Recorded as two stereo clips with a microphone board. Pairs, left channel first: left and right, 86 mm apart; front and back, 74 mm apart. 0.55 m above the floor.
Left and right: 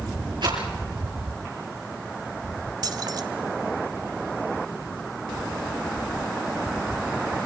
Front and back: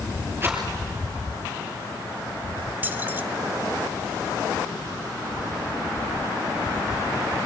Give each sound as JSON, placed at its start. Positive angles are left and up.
{"t": 0.4, "sound": "a rattle", "azimuth_deg": -120, "distance_m": 5.0}
{"t": 2.8, "sound": "keys jangling", "azimuth_deg": -120, "distance_m": 1.2}